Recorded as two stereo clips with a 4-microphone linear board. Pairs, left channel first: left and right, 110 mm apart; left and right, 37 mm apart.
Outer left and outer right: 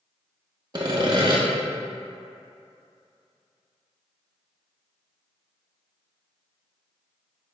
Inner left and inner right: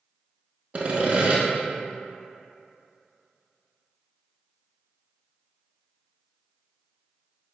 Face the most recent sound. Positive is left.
turn(degrees=-45)  # may be behind; listen again after turning